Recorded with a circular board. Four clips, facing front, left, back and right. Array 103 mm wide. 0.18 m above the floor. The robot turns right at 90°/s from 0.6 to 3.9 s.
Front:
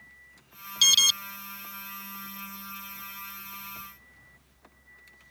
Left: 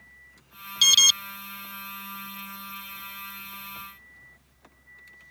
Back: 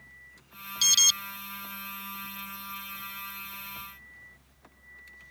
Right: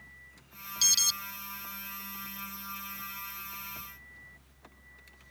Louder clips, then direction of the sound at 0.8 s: Left 12 dB, front 4 dB; 55° left.